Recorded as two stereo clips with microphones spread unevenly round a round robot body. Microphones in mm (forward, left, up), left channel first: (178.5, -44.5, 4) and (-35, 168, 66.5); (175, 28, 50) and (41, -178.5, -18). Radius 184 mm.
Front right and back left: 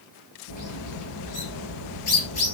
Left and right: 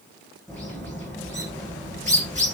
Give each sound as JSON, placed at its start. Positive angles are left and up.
{"t": 0.5, "sound": "a bird", "azimuth_deg": -30, "distance_m": 9.0}